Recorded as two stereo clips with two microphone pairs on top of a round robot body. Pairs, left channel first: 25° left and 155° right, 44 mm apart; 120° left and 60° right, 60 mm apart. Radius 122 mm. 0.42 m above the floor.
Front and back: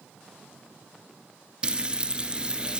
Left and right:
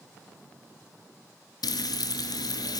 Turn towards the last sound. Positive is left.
turn(degrees=135)